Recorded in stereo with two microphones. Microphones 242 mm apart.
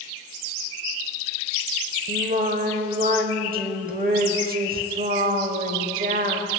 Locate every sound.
2.1 s singing: 40° right (ahead or behind), 0.6 m